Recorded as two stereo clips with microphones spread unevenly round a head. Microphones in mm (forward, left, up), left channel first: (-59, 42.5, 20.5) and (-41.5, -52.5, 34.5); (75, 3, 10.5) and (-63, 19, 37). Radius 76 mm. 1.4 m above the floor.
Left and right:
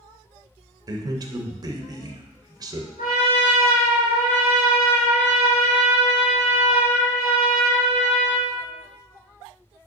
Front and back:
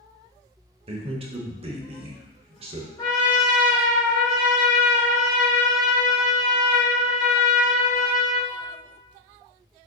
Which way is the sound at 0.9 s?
130° right.